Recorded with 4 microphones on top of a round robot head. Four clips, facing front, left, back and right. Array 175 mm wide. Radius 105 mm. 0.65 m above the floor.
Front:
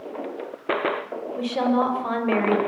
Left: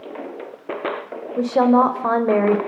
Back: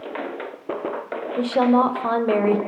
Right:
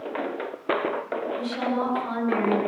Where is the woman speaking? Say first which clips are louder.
Left 15 dB, back 4 dB; 115° left, 3.5 m.